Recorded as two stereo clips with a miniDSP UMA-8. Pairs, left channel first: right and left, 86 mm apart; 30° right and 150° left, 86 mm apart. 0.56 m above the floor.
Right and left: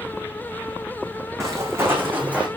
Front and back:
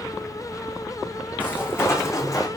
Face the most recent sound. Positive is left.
turn(degrees=15)